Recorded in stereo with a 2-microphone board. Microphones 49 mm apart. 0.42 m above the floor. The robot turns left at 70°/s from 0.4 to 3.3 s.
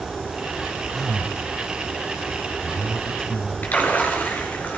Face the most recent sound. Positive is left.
turn(degrees=35)  # may be behind; listen again after turning